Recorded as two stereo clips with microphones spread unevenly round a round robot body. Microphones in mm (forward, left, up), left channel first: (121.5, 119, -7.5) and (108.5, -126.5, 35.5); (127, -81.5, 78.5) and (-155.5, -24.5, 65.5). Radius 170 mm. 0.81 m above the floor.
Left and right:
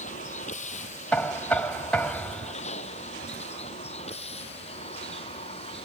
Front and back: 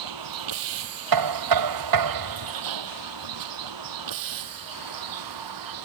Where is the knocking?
175° left.